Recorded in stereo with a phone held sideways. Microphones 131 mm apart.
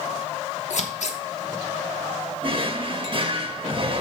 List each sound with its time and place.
0.7 s scissors: 60° left (ahead or behind), 1.0 m
2.4 s a drawer: 40° right (ahead or behind), 0.8 m